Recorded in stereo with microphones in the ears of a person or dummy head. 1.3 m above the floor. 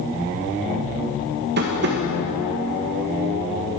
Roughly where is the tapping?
Right.